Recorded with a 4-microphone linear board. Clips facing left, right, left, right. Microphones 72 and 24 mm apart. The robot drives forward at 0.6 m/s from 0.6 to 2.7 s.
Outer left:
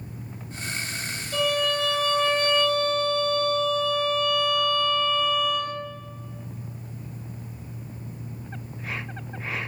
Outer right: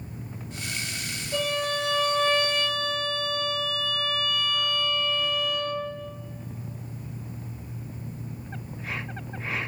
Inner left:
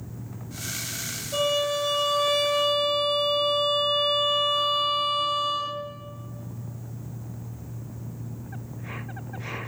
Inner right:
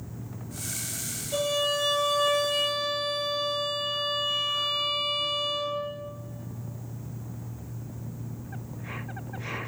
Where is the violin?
30° right (ahead or behind), 3.5 m; by 5.7 s 25° right (ahead or behind), 4 m.